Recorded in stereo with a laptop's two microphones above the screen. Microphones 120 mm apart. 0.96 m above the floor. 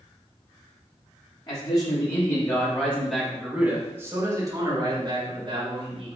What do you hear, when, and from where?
1.5 s a man speaking: 40° left (ahead or behind), 1.6 m; by 6.2 s 55° right (ahead or behind), 2.0 m